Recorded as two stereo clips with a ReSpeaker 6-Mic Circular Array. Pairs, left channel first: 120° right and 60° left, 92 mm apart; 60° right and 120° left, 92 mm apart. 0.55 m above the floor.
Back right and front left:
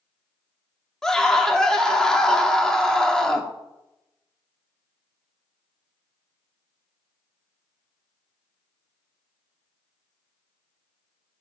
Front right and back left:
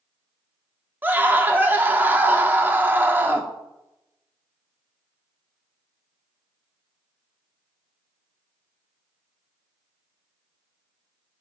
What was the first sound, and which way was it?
A scream, 165° left.